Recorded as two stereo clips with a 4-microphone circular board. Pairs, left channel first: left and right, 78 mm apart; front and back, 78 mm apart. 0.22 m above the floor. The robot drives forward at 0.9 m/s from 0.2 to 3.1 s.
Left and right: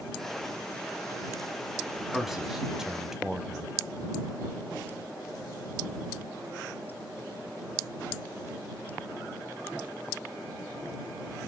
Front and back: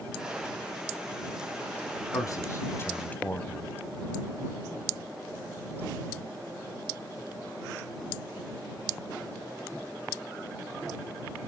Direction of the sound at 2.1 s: 5° right.